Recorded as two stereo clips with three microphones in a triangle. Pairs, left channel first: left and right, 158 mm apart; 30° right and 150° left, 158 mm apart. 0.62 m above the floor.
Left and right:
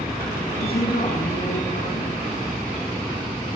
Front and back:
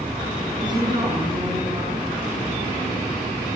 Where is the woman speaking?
90° left, 6.5 m.